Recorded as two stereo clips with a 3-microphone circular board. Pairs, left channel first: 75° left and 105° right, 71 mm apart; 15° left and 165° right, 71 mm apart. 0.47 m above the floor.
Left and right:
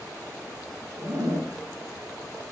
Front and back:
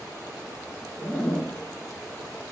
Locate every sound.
1.0 s a zipper: 65° right, 1.0 m